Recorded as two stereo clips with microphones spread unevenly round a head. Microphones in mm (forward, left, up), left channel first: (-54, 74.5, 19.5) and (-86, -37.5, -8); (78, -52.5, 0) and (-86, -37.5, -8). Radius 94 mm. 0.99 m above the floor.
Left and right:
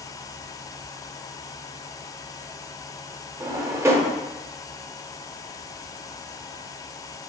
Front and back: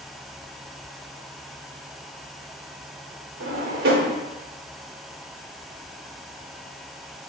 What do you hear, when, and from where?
3.4 s a drawer: 175° right, 0.9 m